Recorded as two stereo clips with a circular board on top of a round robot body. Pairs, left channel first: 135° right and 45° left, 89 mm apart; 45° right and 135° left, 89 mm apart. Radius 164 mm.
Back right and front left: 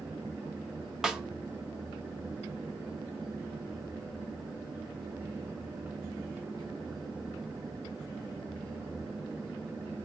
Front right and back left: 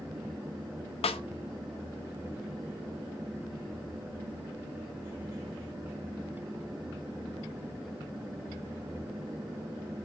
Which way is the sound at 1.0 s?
40° right.